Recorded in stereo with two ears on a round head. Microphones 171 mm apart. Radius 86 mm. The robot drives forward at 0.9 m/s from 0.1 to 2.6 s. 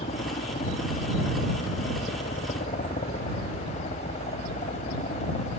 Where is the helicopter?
30° left (ahead or behind); by 5.6 s 35° left (ahead or behind).